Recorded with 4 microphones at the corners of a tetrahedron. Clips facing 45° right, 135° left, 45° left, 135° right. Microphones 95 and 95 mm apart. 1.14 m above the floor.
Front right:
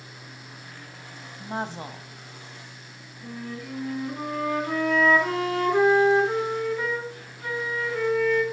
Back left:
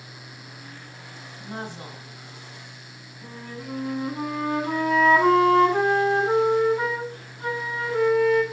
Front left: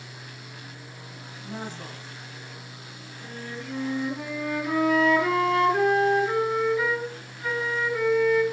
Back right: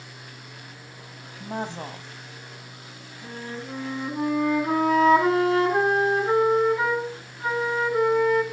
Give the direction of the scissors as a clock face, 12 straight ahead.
I don't hear scissors.